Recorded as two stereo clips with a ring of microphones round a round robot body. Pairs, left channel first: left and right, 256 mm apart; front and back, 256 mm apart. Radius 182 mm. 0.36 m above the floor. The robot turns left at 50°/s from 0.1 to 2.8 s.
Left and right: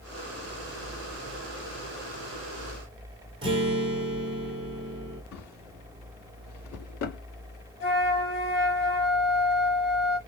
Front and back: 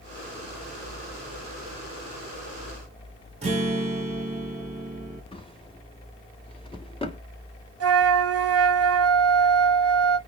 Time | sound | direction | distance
3.4 | a guitar | 140° right | 1.2 m
5.3 | a drawer | 70° left | 1.2 m
7.8 | a flute | 150° left | 1.0 m